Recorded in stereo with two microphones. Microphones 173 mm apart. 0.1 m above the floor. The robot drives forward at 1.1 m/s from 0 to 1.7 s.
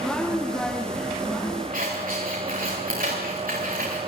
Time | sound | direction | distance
1.7 | scissors | 60° right (ahead or behind) | 8.5 m